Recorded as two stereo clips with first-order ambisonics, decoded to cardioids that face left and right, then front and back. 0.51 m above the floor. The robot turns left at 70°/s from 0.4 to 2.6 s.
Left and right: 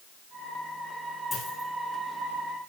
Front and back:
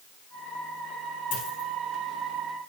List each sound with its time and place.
1.3 s a dropped coin: 20° left, 9.5 m; by 1.7 s 10° right, 9.5 m